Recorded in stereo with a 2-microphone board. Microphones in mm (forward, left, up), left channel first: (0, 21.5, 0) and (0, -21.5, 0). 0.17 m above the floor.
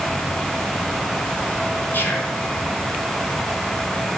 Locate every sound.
1.9 s whispering: 55° left (ahead or behind), 1.9 m